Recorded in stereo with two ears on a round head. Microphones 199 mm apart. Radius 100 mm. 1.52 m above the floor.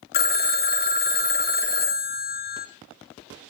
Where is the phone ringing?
45° left (ahead or behind), 0.7 m.